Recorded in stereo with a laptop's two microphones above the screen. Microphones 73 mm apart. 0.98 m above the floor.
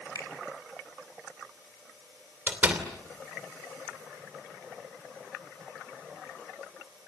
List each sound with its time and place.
0.1 s a finger snap: 55° left (ahead or behind), 3 m
2.5 s a door slam: 20° right (ahead or behind), 2.5 m